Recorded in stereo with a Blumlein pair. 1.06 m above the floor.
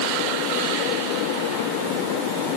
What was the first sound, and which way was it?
Only background noise.